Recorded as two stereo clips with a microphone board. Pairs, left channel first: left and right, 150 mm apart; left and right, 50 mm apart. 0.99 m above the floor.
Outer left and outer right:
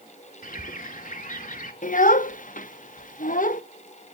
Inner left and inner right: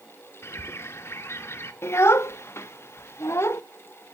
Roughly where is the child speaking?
Left.